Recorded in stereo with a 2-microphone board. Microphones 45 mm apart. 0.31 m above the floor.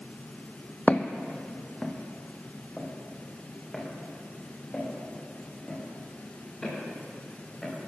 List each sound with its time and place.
0.9 s footsteps: 35° left (ahead or behind), 0.8 m; by 7.7 s 10° left (ahead or behind), 11 m